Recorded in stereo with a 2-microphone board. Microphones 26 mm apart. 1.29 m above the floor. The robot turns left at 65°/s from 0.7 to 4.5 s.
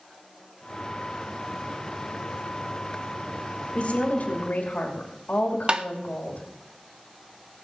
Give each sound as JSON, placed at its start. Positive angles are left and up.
{"t": 3.8, "sound": "a woman speaking", "azimuth_deg": 130, "distance_m": 2.5}
{"t": 5.7, "sound": "tapping", "side_deg": -35, "distance_m": 0.6}